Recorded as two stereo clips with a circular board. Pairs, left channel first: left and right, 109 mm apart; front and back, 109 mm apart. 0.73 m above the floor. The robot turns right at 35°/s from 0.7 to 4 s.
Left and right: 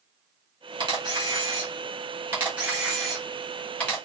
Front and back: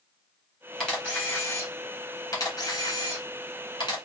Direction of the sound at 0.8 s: 85° right.